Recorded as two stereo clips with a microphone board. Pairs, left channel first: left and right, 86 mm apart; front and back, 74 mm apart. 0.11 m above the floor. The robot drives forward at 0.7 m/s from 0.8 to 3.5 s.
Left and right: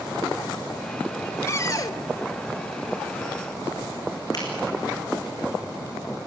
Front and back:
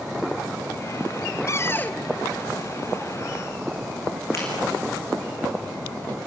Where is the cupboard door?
40° left, 0.7 m; by 2.0 s 75° left, 0.5 m.